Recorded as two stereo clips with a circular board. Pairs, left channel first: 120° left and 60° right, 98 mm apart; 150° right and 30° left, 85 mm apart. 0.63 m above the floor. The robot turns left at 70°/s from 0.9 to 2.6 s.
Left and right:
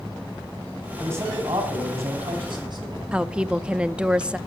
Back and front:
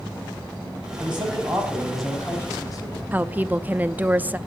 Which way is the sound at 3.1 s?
Straight ahead.